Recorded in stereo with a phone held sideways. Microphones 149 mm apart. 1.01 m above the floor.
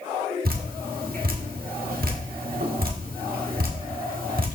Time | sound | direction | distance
0.5 | dripping | 80° right | 1.3 m